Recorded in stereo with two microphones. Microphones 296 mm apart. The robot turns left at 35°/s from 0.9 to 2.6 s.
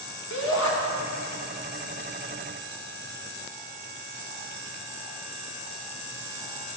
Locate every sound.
0.3 s a shout: 70° left (ahead or behind), 2.5 m